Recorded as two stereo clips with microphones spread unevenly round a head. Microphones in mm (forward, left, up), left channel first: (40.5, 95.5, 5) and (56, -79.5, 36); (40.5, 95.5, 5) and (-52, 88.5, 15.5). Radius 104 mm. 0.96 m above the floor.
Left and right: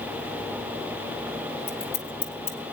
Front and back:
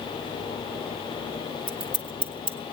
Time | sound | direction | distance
1.7 | scissors | 170° left | 1.5 m